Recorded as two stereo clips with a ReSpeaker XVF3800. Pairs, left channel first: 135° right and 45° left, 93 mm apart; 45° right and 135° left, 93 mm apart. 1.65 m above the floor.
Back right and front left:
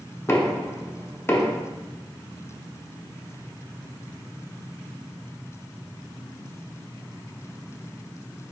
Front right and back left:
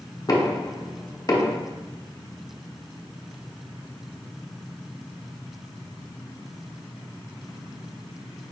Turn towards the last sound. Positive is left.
turn(degrees=-80)